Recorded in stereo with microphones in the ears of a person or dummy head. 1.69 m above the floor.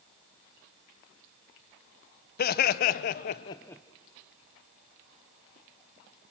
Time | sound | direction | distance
2.4 | laughter | 50° left (ahead or behind) | 0.9 m